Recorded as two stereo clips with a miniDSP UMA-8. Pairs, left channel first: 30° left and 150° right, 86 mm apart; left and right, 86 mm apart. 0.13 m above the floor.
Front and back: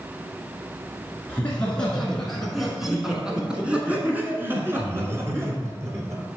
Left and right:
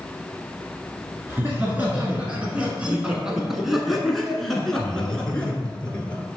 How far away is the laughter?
About 1.7 m.